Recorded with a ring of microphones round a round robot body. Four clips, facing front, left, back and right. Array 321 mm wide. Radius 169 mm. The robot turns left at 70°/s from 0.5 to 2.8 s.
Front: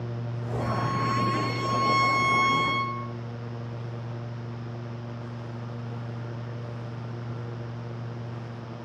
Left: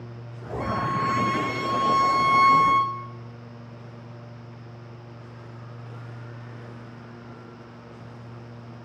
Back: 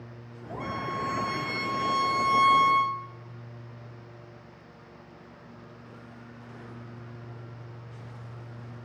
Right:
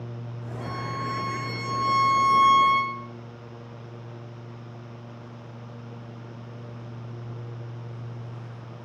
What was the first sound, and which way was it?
A violin, 100° left.